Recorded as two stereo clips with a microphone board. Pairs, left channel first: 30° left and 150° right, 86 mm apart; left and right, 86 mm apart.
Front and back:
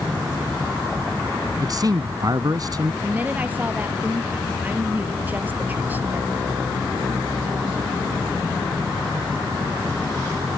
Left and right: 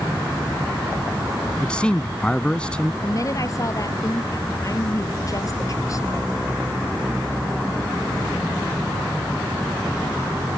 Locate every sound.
1.6 s a man speaking: 170° left
3.0 s a woman speaking: 140° left